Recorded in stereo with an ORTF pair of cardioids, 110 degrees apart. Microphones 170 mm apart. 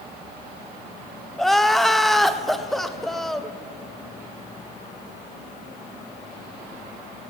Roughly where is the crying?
Ahead.